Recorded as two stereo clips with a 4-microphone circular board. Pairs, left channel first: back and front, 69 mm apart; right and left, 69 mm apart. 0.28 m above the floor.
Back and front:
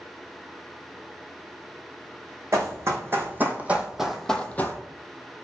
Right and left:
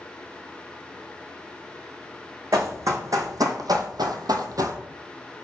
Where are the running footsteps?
45° left, 1.1 m; by 4.8 s 125° left, 0.6 m.